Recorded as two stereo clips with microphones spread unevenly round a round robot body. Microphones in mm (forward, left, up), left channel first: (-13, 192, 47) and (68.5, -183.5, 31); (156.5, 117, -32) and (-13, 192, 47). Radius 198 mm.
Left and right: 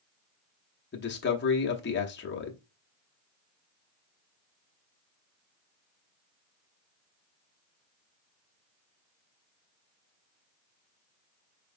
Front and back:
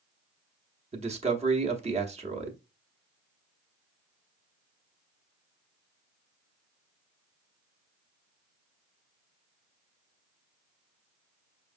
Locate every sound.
0.9 s a man speaking: 85° left, 0.9 m